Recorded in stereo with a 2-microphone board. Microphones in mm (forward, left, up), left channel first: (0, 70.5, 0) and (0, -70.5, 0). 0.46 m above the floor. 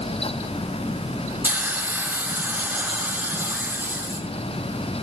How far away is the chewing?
I don't hear chewing.